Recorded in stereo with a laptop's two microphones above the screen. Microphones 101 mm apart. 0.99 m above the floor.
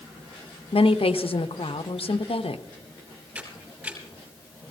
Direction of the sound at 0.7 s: 70° left (ahead or behind).